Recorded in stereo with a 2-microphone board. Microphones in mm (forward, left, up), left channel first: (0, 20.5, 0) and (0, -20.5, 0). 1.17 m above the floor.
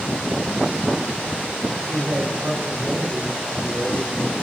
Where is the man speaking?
75° right (ahead or behind), 3 m; by 4.3 s 60° right (ahead or behind), 2 m.